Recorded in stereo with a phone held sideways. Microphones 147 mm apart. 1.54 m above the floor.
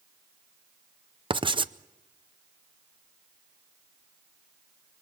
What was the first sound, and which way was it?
Writing, 35° right (ahead or behind).